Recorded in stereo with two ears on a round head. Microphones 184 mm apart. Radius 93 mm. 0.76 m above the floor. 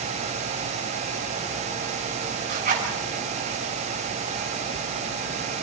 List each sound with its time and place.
2.5 s a zipper: 40° right (ahead or behind), 7 m